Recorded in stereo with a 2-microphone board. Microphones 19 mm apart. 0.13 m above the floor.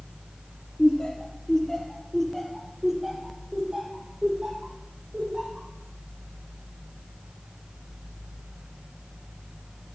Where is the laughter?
50° left (ahead or behind), 3 m; by 5.7 s 45° right (ahead or behind), 5.5 m.